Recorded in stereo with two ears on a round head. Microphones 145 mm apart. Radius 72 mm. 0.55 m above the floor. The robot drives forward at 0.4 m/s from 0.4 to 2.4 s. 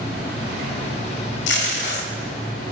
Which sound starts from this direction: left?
Tape being pulled, at 1.5 s.